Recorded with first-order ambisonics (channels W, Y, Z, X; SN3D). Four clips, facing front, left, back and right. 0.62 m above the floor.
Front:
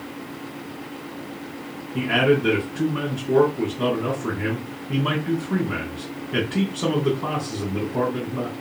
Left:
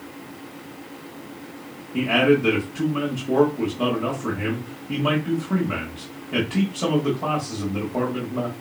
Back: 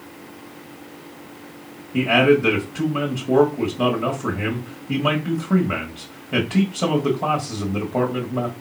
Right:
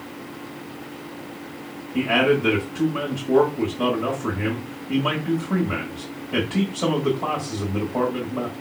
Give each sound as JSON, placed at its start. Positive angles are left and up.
{"t": 1.9, "sound": "a man speaking", "azimuth_deg": 175, "distance_m": 1.6}